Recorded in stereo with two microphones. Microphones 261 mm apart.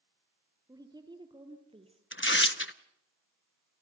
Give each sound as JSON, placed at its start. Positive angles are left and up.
{"t": 0.7, "sound": "a woman speaking", "side_deg": -15, "distance_m": 2.5}
{"t": 2.1, "sound": "tearing paper", "side_deg": 45, "distance_m": 0.7}